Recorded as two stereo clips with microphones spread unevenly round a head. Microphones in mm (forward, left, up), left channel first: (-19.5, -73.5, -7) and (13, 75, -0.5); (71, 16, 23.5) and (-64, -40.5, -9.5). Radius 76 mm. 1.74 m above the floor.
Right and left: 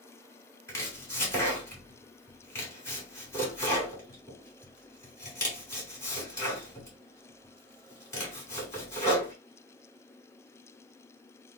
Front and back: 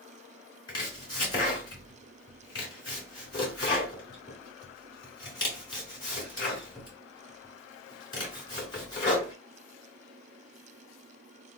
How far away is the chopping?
About 2.5 m.